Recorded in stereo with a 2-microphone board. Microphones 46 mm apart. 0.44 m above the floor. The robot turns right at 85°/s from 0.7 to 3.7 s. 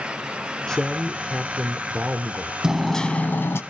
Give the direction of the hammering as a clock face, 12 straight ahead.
12 o'clock.